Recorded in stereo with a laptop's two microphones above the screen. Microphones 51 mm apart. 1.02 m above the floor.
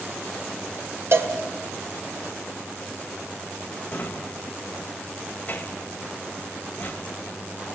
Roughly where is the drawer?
Left.